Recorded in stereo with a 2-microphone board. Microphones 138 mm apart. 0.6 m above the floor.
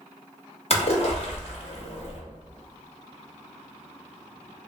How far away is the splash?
About 0.6 m.